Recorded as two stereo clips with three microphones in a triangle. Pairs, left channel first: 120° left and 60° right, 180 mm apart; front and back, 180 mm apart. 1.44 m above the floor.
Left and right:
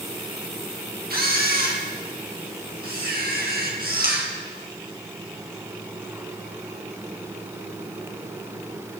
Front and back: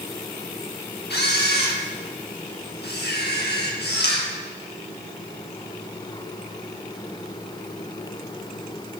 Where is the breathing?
I don't hear breathing.